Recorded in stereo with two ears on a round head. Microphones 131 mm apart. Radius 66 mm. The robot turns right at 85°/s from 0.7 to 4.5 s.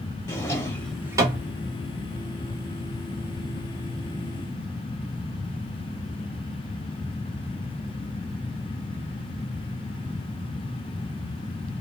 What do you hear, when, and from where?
0.3 s a drawer: 20° left (ahead or behind), 0.9 m; by 1.5 s 45° right (ahead or behind), 0.9 m